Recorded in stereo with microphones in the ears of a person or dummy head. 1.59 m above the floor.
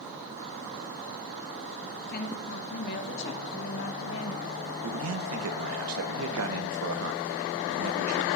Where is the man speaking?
85° right, 1.0 m.